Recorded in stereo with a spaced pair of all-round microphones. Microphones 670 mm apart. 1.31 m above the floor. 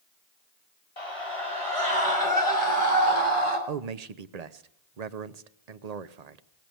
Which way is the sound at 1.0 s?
55° left (ahead or behind).